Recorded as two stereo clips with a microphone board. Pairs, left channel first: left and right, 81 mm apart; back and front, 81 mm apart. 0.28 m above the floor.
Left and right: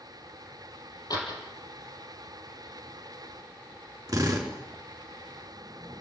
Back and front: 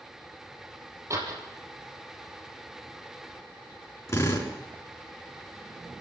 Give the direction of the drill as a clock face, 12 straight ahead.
4 o'clock.